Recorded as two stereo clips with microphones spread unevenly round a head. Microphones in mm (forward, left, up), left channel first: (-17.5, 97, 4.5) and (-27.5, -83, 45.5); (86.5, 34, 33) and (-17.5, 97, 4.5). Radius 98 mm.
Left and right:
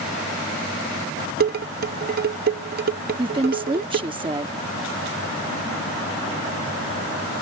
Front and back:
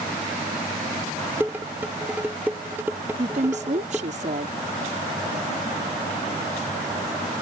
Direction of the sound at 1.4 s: 125° right.